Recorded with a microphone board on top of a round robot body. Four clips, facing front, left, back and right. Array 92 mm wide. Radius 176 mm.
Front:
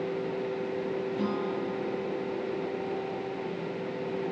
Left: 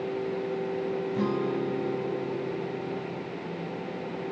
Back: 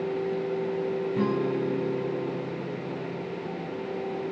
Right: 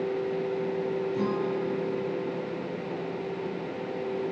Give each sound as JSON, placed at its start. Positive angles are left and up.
{"t": 1.1, "sound": "a guitar", "azimuth_deg": 155, "distance_m": 8.0}